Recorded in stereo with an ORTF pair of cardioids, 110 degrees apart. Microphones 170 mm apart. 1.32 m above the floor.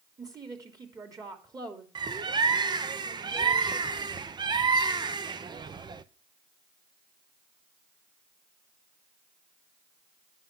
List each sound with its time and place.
0.2 s a woman speaking: 20° right, 3 m
1.9 s a bird: 25° right, 0.8 m